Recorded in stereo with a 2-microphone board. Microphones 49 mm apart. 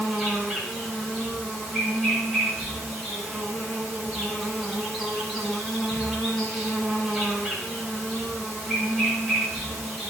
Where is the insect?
5° left (ahead or behind), 5 m.